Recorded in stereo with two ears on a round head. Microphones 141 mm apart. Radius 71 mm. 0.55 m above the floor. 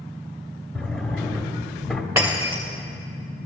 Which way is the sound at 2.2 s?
15° right (ahead or behind).